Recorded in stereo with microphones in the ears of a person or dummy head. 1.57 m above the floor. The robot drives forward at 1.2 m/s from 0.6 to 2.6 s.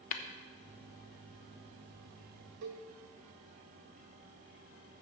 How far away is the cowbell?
About 1.4 m.